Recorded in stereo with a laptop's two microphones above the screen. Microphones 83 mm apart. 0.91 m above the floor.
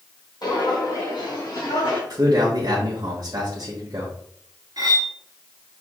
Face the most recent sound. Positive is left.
turn(degrees=-50)  # may be behind; listen again after turning